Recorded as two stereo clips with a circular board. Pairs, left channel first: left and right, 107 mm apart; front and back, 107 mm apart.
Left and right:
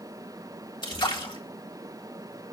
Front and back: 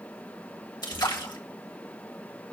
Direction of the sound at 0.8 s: 45° left.